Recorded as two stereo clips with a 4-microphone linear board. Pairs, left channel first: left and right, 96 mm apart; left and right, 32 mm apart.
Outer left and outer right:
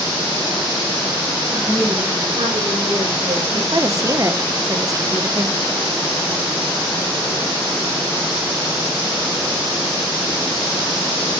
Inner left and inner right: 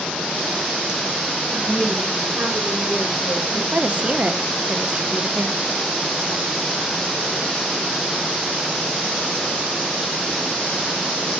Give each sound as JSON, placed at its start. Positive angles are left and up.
{"t": 1.5, "sound": "a woman speaking", "side_deg": -55, "distance_m": 8.0}
{"t": 3.7, "sound": "a woman speaking", "side_deg": -35, "distance_m": 1.0}